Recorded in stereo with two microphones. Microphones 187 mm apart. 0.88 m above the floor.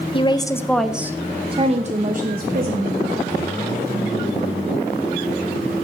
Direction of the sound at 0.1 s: 30° left (ahead or behind).